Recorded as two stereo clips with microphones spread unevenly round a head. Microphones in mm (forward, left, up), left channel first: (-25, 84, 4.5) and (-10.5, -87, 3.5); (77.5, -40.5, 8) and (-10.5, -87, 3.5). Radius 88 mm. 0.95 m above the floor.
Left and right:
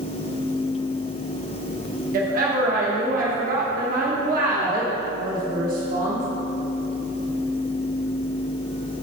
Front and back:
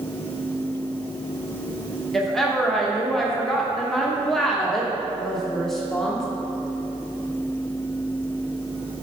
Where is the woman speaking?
60° right, 1.1 m.